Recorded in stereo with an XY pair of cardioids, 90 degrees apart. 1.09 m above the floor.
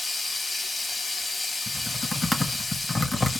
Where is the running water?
35° left, 1.1 m.